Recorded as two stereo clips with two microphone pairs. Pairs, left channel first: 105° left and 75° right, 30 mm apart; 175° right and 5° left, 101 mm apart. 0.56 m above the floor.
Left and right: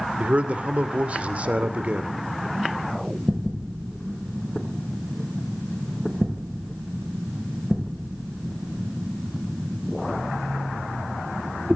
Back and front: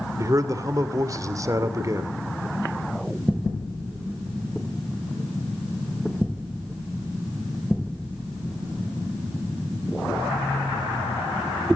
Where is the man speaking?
45° right, 2 m.